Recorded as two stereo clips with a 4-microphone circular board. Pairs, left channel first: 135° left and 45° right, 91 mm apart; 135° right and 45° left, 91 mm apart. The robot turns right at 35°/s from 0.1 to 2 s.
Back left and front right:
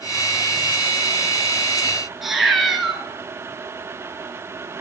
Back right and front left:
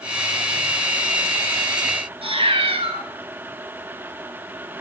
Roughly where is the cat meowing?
Ahead left.